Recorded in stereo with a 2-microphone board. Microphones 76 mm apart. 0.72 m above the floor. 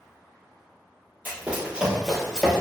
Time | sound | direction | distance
1.2 | running footsteps | 25° right (ahead or behind) | 1.1 m